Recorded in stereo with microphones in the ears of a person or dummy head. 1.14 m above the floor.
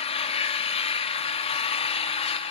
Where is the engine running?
30° left (ahead or behind), 0.9 m.